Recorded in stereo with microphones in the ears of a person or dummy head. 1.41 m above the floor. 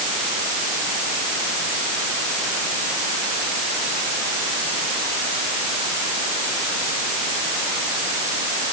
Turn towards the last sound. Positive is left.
No sound to turn to.